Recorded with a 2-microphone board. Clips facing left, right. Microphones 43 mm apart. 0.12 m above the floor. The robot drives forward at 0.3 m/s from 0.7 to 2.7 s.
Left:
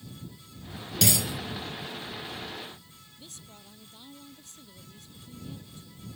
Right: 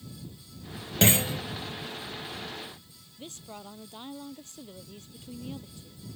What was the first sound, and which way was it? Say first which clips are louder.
A clunk: right 4 dB; 35° right (ahead or behind).